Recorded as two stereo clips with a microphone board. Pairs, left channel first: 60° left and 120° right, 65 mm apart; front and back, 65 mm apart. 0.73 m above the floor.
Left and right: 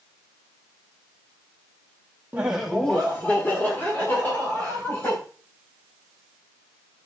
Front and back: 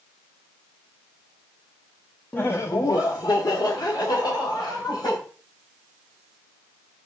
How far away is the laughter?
About 0.8 m.